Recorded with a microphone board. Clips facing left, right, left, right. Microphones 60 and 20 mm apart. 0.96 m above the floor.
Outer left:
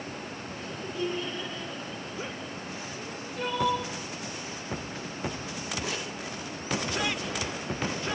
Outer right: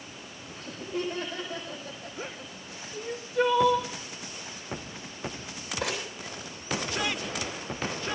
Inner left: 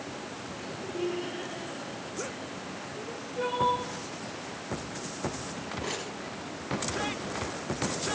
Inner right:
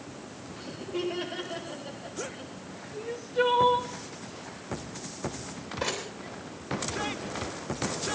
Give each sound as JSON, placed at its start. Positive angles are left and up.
{"t": 0.6, "sound": "laughter", "side_deg": -70, "distance_m": 5.0}
{"t": 2.9, "sound": "crying", "side_deg": -75, "distance_m": 3.0}
{"t": 5.8, "sound": "crumpling", "side_deg": -80, "distance_m": 7.5}